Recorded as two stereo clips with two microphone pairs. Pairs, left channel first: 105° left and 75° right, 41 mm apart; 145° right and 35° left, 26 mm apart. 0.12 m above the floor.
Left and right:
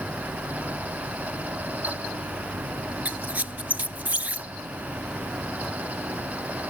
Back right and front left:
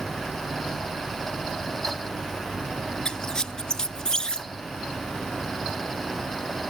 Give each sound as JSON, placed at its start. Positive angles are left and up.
{"t": 3.0, "sound": "a squeak", "azimuth_deg": -100, "distance_m": 0.5}